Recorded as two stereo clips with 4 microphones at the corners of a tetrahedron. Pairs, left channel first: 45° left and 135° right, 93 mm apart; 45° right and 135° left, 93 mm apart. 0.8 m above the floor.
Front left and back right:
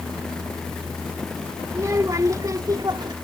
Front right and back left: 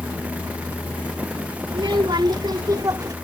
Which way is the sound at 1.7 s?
165° left.